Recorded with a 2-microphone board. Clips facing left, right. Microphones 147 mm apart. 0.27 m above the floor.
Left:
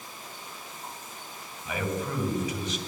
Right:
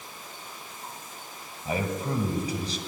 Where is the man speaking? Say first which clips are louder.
Right 2 dB; 35° right (ahead or behind), 1.9 m.